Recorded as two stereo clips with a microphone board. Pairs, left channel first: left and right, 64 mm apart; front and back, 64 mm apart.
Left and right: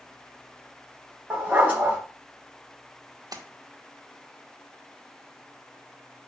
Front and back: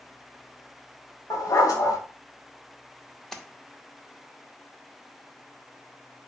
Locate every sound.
1.3 s a dog barking: 25° right, 2.5 m
3.3 s a splash: 85° right, 1.1 m